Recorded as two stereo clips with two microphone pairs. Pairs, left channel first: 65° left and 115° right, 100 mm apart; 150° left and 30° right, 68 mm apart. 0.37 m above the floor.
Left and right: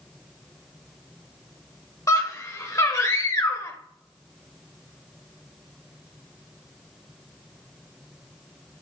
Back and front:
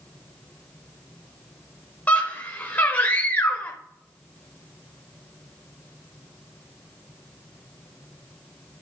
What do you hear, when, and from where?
2.1 s a scream: 100° left, 1.1 m